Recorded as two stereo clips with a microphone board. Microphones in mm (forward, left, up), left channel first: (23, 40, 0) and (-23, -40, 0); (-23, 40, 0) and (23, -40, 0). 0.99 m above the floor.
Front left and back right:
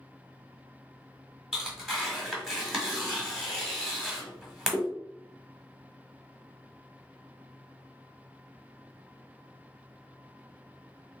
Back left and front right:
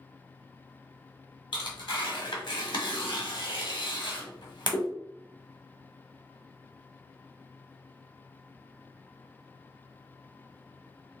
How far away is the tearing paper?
About 1.5 m.